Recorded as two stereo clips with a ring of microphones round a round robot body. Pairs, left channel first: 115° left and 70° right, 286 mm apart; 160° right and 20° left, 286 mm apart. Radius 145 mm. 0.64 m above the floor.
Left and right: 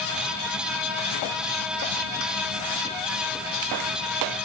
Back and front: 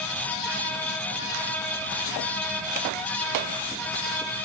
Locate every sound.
Only background noise.